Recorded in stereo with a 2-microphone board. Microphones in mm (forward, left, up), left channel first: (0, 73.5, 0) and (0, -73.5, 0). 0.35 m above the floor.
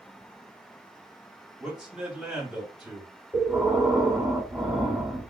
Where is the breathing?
5° right (ahead or behind), 1.7 m.